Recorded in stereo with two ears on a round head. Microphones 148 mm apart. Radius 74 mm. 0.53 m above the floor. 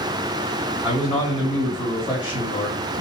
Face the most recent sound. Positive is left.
turn(degrees=0)  # may be behind; listen again after turning